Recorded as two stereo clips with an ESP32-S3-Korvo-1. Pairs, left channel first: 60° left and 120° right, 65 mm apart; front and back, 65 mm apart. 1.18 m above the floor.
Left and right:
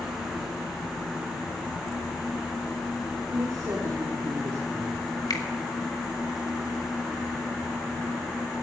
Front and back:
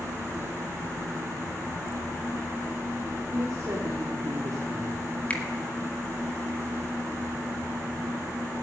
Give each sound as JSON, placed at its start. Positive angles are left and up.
{"t": 3.3, "sound": "a woman speaking", "azimuth_deg": -140, "distance_m": 4.0}
{"t": 5.3, "sound": "a finger snap", "azimuth_deg": 70, "distance_m": 2.0}